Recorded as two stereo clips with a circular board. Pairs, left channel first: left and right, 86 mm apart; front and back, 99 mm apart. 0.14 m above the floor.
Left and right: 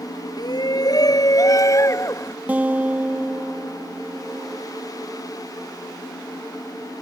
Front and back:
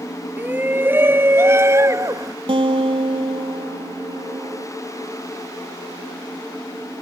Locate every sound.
0.4 s a shout: 110° left; by 2.4 s 135° left
2.5 s a guitar: 160° right